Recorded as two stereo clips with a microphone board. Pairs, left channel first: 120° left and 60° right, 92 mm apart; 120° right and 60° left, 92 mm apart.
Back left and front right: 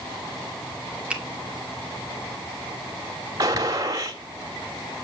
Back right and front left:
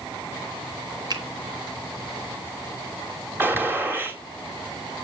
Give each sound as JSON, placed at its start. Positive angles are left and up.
{"t": 1.1, "sound": "a finger snap", "azimuth_deg": 15, "distance_m": 2.5}
{"t": 3.4, "sound": "a gunshot", "azimuth_deg": -10, "distance_m": 2.5}